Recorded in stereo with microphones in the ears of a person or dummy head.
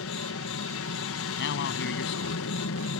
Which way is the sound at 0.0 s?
60° left (ahead or behind).